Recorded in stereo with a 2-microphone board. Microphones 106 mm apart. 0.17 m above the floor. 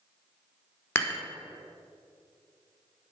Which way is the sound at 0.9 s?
20° left (ahead or behind).